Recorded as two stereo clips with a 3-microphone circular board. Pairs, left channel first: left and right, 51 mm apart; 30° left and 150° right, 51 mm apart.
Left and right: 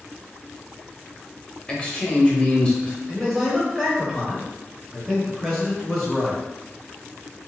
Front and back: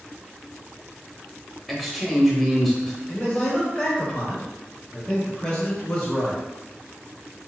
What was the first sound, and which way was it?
A man speaking, 115° left.